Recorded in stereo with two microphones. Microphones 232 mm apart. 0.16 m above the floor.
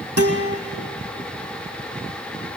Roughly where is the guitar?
Right.